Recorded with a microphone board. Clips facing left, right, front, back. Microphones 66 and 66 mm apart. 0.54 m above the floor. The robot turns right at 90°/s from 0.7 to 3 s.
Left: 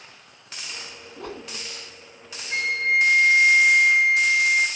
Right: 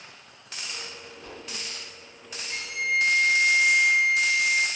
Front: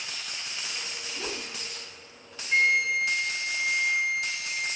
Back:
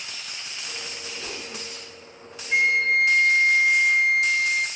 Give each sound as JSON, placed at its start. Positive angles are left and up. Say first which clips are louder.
{"t": 1.2, "sound": "a whoosh", "louder": "left 11 dB, front 2 dB", "azimuth_deg": 55, "distance_m": 2.5}
{"t": 2.5, "sound": "a flute", "louder": "left 5 dB, back 3 dB", "azimuth_deg": 105, "distance_m": 0.9}